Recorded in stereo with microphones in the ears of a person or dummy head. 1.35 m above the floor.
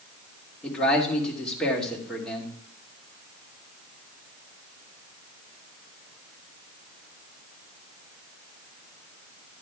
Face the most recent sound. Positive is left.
turn(degrees=5)  # may be behind; listen again after turning